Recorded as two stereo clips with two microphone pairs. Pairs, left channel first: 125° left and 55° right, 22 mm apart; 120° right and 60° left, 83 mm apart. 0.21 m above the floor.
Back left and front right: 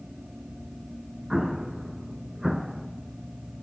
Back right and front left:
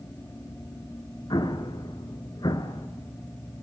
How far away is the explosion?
About 1.2 m.